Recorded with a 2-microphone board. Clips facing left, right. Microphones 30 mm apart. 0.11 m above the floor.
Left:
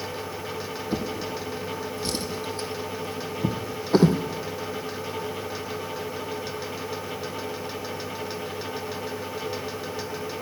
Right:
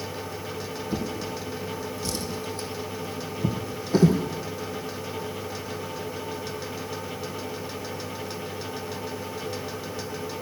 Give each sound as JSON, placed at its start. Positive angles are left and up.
{"t": 0.9, "sound": "a drawer", "side_deg": 35, "distance_m": 1.7}